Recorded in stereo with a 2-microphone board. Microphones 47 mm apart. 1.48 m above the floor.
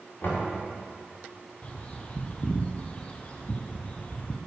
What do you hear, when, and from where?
0.2 s knocking: 50° left (ahead or behind), 2.5 m
1.6 s a bird: 30° left (ahead or behind), 0.6 m